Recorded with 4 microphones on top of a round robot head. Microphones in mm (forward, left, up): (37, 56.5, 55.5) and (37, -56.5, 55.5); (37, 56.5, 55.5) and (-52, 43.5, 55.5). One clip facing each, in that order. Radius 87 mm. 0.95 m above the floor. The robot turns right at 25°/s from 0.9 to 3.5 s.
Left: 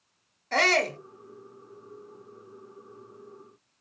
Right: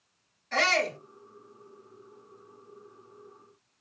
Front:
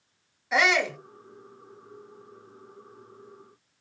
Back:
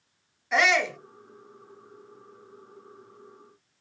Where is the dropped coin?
I don't hear a dropped coin.